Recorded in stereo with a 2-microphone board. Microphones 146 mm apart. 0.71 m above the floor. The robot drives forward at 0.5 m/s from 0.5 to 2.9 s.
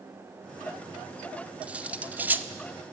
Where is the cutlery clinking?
10° right (ahead or behind), 1.1 m; by 2.5 s 15° right (ahead or behind), 0.7 m.